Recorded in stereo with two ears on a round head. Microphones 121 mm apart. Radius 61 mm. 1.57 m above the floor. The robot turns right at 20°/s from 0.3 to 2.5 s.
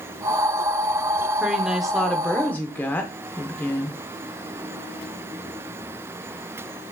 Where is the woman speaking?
10° right (ahead or behind), 0.7 m; by 4.0 s 15° left (ahead or behind), 0.7 m.